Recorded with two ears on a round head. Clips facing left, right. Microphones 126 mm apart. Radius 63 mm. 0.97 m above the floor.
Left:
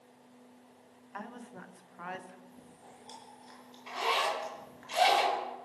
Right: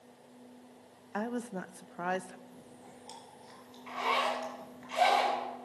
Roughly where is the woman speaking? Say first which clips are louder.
Right 9 dB; right.